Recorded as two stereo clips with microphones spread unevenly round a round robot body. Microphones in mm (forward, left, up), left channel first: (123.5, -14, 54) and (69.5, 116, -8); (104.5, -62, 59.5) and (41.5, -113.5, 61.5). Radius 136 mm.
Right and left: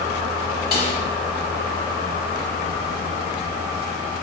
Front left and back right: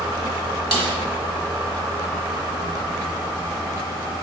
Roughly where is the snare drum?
Behind right.